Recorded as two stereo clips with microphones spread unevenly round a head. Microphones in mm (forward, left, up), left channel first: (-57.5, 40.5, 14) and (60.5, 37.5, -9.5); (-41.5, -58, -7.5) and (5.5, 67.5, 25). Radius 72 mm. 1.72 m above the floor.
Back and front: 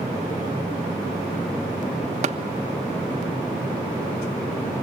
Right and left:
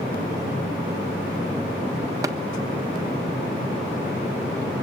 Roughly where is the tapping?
Ahead.